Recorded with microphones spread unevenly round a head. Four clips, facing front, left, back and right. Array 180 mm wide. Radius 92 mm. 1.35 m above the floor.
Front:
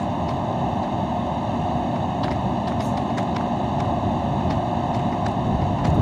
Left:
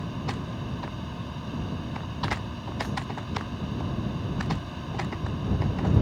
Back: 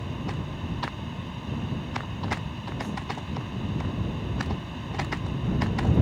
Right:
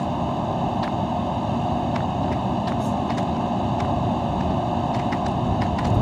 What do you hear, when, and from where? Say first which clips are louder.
0.0 s a fan: right 10 dB, front 11 dB; 45° right